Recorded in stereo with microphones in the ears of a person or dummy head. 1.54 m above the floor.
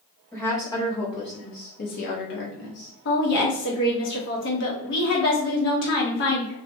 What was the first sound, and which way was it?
A woman speaking, 15° left (ahead or behind).